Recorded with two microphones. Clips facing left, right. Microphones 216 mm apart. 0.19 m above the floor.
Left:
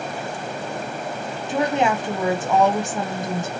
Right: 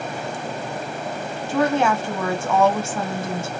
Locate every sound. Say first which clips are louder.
1.5 s a woman speaking: right 1 dB; 20° left (ahead or behind), 1.0 m